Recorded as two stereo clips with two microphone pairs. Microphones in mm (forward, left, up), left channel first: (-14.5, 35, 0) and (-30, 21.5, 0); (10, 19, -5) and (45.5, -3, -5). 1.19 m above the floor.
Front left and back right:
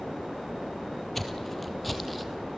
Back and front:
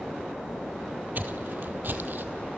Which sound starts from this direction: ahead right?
Footsteps, at 1.1 s.